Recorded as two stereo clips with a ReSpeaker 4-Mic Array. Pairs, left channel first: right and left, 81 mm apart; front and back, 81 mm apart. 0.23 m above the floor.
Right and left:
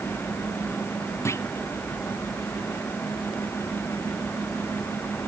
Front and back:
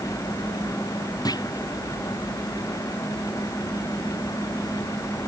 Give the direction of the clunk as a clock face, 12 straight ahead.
1 o'clock.